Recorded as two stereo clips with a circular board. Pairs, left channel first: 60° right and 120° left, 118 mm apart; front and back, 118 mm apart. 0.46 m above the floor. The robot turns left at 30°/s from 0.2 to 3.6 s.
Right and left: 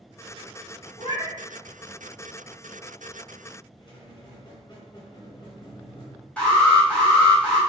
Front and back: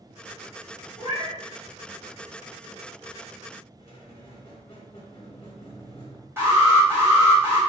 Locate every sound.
1.0 s a cat meowing: 20° right, 1.5 m; by 1.4 s 30° right, 1.5 m
3.8 s a squeak: 25° right, 0.9 m
6.4 s an alarm: 130° right, 1.8 m